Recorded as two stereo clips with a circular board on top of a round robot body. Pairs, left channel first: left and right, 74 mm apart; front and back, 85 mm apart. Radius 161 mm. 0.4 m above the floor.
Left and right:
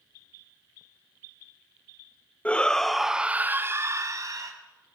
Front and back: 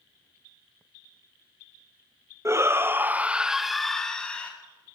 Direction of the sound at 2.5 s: 150° left.